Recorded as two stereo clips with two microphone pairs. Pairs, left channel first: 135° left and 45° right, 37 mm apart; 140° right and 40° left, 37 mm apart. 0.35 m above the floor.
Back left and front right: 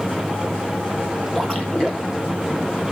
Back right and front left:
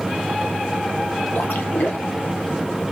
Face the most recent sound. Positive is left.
turn(degrees=-150)